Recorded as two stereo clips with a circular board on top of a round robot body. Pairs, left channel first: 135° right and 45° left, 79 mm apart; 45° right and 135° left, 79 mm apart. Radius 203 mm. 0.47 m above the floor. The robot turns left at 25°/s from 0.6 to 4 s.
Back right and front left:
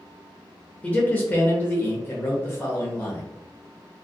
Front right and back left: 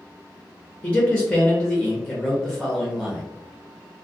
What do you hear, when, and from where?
0.8 s a man speaking: 90° right, 1.0 m; by 3.2 s 150° right, 1.0 m